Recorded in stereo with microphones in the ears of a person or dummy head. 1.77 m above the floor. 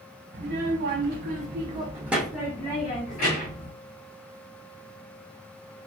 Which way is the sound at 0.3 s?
60° right (ahead or behind).